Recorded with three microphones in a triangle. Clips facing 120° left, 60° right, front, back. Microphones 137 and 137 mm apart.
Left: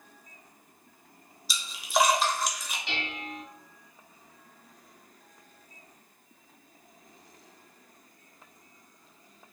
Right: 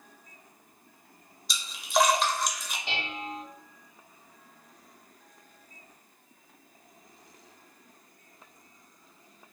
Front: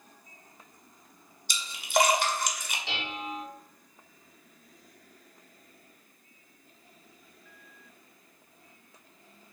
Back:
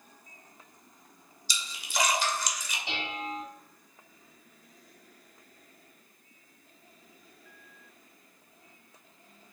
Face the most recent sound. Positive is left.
turn(degrees=-110)